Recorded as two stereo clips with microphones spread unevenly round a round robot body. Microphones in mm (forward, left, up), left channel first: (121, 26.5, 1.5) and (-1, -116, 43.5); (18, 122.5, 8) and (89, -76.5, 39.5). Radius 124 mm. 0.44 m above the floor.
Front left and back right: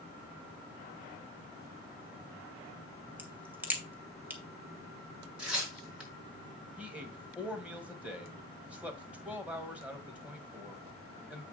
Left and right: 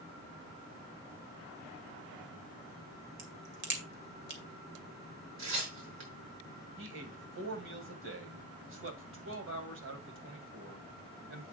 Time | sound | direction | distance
3.2 | a crack | 45° right | 2.5 m
5.4 | tearing paper | 45° right | 5.5 m
6.8 | a man speaking | 45° right | 2 m